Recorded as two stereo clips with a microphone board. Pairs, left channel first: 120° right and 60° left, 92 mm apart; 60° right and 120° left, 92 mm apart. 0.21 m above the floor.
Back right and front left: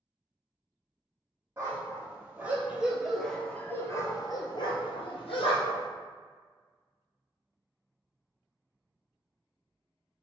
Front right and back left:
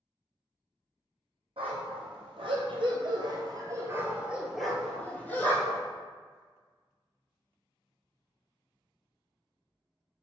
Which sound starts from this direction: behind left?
A dog barking, at 1.6 s.